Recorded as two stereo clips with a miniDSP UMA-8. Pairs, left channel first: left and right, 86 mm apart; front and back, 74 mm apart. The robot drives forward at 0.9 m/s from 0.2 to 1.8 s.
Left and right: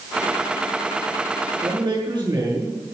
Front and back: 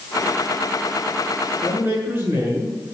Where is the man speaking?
110° right, 6.5 m.